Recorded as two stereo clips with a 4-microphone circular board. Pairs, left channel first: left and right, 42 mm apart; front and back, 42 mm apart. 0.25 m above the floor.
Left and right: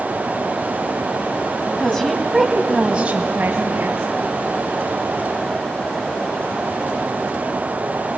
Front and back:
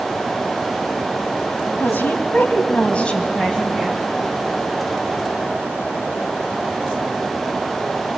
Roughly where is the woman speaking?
Ahead.